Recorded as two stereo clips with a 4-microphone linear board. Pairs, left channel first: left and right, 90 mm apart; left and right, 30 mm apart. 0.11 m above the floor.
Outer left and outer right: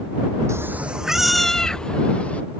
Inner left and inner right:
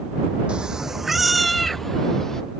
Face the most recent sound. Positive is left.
turn(degrees=15)  # may be behind; listen again after turning